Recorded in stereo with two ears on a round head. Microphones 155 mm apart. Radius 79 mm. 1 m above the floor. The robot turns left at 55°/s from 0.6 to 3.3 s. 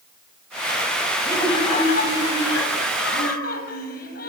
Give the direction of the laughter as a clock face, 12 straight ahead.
6 o'clock.